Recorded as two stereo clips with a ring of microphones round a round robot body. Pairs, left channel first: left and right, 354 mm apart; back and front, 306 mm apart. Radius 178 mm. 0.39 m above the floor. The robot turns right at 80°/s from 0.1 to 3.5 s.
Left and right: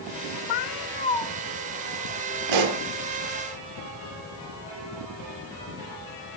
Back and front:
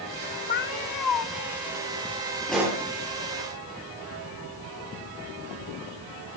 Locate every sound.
0.5 s a cat meowing: 115° left, 1.0 m; by 1.3 s straight behind, 1.0 m
2.5 s a pop: 95° right, 3.5 m; by 2.8 s 65° right, 3.5 m